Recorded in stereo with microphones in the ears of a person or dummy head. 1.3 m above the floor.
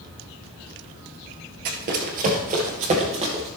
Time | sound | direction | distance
1.6 | running footsteps | 50° right (ahead or behind) | 1.9 m